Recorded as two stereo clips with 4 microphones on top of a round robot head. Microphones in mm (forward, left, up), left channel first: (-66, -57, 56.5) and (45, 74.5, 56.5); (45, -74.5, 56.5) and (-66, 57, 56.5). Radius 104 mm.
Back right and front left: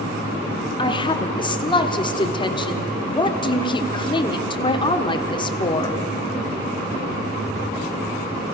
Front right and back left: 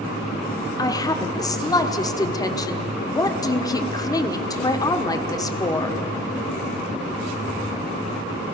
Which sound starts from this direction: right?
A woman speaking, at 0.8 s.